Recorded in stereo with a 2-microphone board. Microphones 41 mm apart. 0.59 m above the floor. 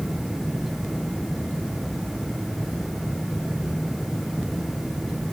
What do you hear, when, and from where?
Only background noise.